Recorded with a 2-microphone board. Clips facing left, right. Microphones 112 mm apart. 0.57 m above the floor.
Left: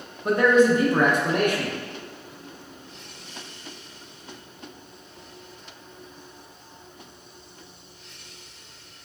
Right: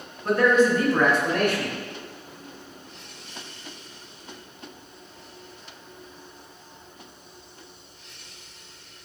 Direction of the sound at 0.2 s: 15° left (ahead or behind).